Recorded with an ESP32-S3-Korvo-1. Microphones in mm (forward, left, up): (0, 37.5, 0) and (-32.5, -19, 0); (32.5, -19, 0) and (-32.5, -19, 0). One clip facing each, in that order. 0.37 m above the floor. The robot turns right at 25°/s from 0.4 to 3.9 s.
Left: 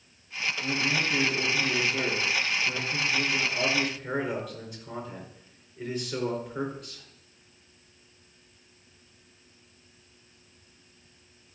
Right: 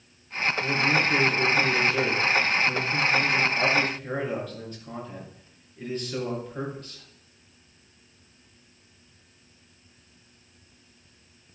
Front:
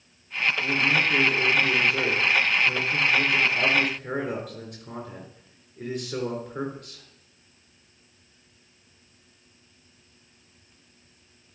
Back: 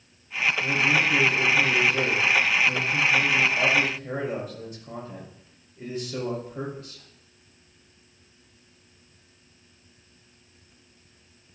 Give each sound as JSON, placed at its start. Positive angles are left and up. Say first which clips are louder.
{"t": 0.6, "sound": "a man speaking", "louder": "right 5 dB, back 1 dB", "azimuth_deg": -100, "distance_m": 4.0}